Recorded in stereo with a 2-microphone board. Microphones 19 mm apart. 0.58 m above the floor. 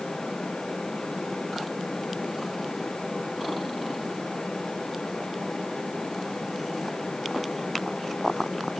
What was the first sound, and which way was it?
Only background noise.